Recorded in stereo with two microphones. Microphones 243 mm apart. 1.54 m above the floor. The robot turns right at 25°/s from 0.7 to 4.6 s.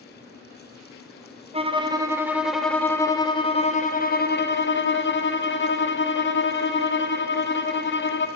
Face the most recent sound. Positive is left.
turn(degrees=50)